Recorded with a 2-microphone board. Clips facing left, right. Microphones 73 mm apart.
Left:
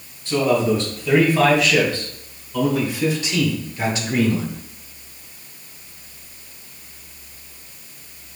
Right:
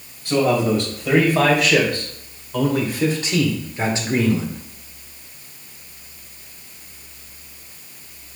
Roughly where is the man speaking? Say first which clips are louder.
Even; right.